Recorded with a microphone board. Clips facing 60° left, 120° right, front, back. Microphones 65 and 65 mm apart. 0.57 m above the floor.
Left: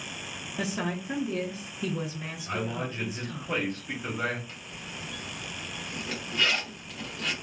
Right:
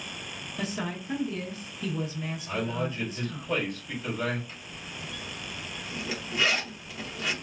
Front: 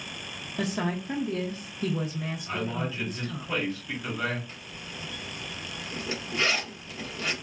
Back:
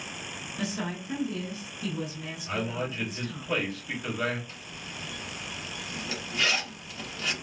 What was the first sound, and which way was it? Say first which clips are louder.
A woman speaking: left 2 dB, front 4 dB; 5° right.